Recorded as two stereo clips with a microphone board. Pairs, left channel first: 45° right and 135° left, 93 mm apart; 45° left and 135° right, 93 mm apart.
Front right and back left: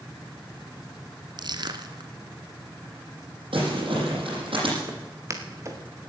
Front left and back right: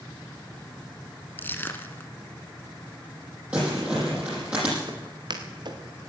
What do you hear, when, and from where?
1.4 s crushing: 110° left, 1.3 m
3.5 s crumpling: 150° left, 8 m
4.9 s footsteps: 170° right, 2.5 m